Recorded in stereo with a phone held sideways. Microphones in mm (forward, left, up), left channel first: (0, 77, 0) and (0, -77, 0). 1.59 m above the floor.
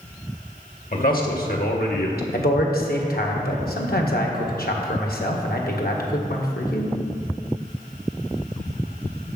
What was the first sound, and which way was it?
A man speaking, 70° left (ahead or behind).